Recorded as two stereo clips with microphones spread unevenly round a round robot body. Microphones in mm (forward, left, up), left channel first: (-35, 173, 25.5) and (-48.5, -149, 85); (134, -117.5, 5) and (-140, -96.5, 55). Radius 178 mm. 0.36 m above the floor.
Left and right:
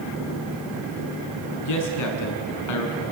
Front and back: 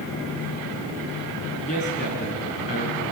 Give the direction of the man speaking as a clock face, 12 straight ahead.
10 o'clock.